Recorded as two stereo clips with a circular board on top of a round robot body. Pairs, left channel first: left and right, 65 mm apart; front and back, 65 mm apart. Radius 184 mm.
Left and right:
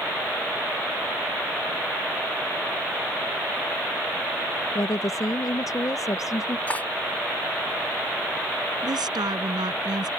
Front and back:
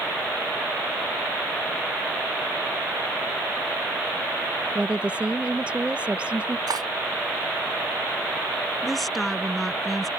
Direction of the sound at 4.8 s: 110° left.